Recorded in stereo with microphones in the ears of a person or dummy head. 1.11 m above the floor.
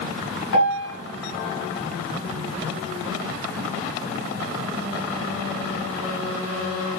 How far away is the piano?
About 1.8 m.